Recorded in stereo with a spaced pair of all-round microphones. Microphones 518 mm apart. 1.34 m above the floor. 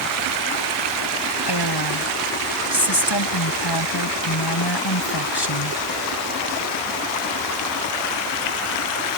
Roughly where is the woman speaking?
Left.